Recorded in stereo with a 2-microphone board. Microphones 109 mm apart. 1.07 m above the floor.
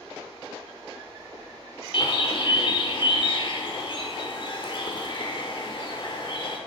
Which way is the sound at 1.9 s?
50° left (ahead or behind).